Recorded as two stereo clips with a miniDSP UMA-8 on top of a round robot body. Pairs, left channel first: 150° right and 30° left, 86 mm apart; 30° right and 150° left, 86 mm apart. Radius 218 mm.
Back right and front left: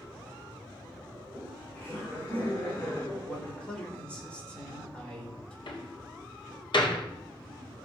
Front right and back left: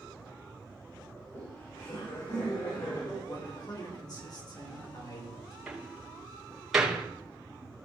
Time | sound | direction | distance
1.1 | laughter | 70° right | 5.5 m
3.2 | a man speaking | 70° right | 4.5 m
5.7 | a door slam | 125° right | 3 m